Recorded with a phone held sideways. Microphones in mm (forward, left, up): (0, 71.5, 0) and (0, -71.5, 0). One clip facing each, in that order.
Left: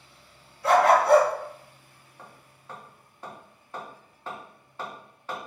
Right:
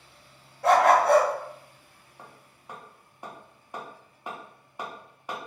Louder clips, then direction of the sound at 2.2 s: Even; 15° right (ahead or behind).